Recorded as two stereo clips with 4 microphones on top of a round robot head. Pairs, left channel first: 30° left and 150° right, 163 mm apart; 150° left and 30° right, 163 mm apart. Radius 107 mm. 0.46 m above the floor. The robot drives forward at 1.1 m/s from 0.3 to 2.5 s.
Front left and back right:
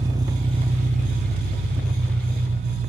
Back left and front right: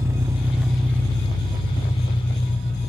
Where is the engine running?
95° right, 1.2 m; by 2.9 s 165° right, 3 m.